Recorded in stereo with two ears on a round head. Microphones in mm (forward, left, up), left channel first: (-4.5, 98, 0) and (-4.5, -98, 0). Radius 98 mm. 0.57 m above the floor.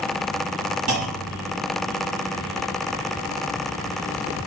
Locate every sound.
0.9 s a clunk: 70° right (ahead or behind), 0.8 m